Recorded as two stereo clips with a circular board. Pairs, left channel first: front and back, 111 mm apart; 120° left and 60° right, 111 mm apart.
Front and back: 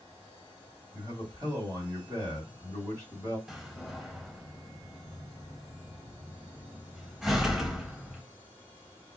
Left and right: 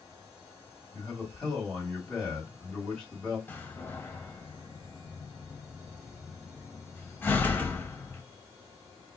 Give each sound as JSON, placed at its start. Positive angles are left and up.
{"t": 0.9, "sound": "a man speaking", "azimuth_deg": -155, "distance_m": 1.9}
{"t": 3.5, "sound": "a door slam", "azimuth_deg": 100, "distance_m": 0.7}